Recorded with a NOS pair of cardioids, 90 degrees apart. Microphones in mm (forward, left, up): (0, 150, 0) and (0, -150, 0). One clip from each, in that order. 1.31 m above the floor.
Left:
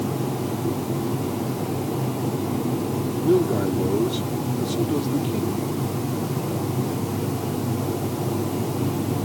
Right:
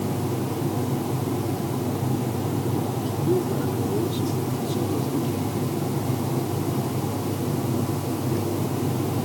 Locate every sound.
3.1 s a man speaking: 35° left